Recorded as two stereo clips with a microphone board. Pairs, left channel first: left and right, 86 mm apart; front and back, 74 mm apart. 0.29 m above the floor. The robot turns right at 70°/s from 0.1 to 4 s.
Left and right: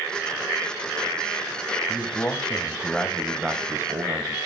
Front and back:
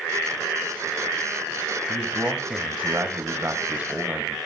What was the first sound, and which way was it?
A man speaking, 95° left.